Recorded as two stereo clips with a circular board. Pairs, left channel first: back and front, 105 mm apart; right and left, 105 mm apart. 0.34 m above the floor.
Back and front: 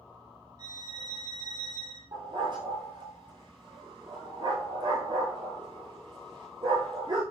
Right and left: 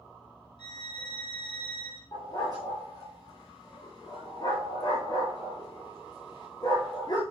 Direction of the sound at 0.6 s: 50° right.